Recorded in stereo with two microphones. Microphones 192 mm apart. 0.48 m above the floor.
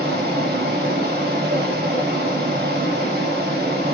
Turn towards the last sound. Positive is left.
turn(degrees=-55)  # may be behind; listen again after turning